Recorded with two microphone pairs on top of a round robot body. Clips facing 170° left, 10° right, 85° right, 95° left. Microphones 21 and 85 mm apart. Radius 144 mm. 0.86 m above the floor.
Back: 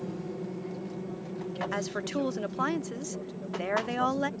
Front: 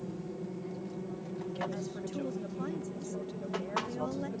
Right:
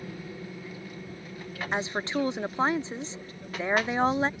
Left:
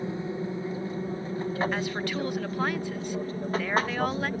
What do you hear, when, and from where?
0.0 s an aircraft: 115° left; by 4.4 s 65° left
1.7 s a woman speaking: 150° right